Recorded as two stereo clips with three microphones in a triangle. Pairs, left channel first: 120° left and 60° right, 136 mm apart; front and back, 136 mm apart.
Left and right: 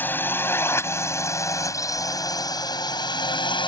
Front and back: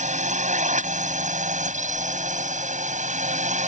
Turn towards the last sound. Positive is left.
turn(degrees=170)